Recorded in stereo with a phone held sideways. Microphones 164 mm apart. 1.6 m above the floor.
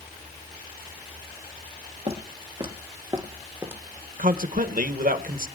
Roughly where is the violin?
I don't hear a violin.